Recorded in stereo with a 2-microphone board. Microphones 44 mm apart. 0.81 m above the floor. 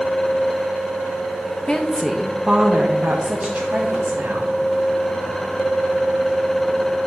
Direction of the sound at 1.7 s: 20° left (ahead or behind).